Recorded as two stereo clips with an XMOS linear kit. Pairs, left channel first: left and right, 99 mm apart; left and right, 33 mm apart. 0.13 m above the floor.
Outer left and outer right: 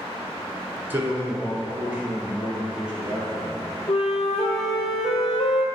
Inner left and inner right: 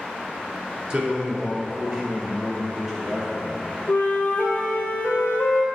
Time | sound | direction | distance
0.9 | a man speaking | 20° right (ahead or behind) | 1.4 m
3.9 | a flute | 75° left (ahead or behind) | 1.0 m